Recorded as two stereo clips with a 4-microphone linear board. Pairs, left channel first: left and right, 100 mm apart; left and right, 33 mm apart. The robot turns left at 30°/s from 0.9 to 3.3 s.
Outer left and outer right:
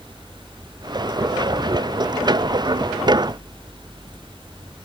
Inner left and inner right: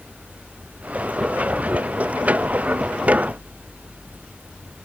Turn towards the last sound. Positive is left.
No sound to turn to.